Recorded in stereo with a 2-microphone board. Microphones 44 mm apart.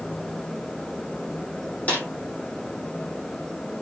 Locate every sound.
1.9 s a snare drum: 30° left (ahead or behind), 7 m